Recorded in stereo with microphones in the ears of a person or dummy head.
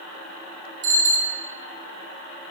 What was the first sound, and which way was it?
A bicycle bell, 70° right (ahead or behind).